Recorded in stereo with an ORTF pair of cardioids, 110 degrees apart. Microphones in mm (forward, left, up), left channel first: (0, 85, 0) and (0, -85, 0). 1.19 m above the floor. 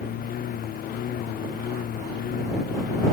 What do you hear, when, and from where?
0.0 s a lawn mower: 60° left